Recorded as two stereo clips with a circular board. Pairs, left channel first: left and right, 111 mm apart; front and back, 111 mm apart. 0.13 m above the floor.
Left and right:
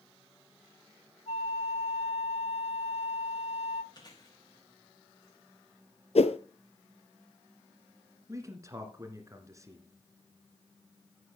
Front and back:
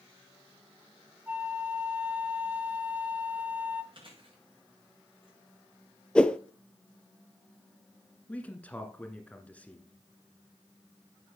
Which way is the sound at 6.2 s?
80° left.